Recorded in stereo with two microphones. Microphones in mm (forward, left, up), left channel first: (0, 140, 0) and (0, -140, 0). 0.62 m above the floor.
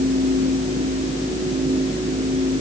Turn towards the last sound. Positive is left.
No sound to turn to.